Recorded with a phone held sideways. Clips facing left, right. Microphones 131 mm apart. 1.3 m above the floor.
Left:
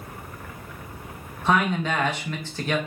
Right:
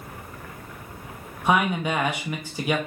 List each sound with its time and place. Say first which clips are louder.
1.4 s a man speaking: even; 10° right (ahead or behind), 0.9 m